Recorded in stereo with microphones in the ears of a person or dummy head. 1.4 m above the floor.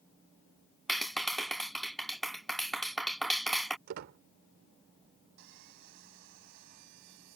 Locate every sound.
0.9 s a clap: centre (ahead or behind)
3.9 s a squeak: 60° right (ahead or behind)
5.4 s sawing: 60° right (ahead or behind)